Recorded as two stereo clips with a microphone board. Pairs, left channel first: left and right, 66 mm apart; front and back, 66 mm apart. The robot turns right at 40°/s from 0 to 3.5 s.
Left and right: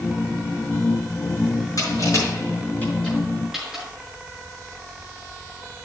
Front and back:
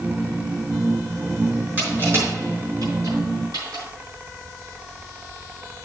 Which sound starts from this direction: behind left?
Crushing, at 1.8 s.